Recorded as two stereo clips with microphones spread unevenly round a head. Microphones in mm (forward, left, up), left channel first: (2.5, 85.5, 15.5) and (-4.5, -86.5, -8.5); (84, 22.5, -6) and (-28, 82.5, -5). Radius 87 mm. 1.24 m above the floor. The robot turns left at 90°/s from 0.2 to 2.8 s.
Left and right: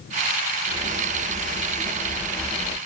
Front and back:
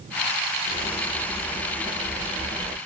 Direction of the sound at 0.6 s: 30° right.